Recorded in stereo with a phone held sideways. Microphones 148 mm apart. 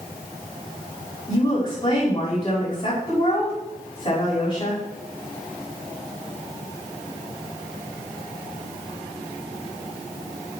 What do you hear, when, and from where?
1.3 s a woman speaking: 50° left (ahead or behind), 6.5 m